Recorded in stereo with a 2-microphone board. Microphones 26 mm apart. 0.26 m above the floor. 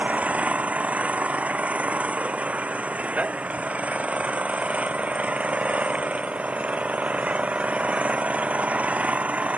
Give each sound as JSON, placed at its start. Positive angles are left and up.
{"t": 0.0, "sound": "an engine running", "side_deg": -55}